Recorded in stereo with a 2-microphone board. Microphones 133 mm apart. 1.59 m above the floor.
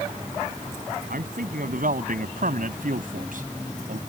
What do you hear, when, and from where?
1.1 s a man speaking: 80° right; by 4.0 s 70° right (ahead or behind)